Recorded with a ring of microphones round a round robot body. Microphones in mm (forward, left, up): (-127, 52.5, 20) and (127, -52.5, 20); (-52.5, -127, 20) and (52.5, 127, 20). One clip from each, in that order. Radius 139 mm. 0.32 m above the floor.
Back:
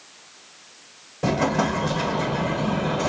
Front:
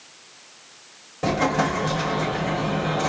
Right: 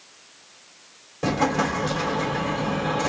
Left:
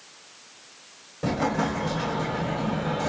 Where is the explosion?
100° right, 1.4 m.